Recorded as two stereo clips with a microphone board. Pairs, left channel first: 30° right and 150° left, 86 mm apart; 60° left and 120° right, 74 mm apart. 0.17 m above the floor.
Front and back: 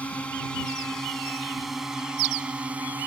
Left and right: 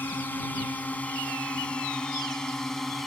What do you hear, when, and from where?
0.0 s a drone: 30° left; by 3.1 s 145° left